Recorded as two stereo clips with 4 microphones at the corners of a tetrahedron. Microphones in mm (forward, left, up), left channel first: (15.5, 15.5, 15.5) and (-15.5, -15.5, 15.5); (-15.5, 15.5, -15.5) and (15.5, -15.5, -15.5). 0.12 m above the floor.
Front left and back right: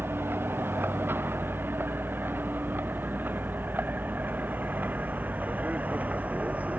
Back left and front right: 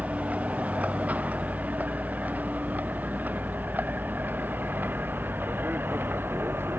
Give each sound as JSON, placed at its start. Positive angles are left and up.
{"t": 0.0, "sound": "a vehicle", "azimuth_deg": -100}